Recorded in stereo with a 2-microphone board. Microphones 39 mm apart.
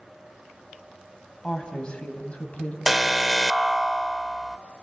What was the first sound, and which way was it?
A woman speaking, 20° left (ahead or behind).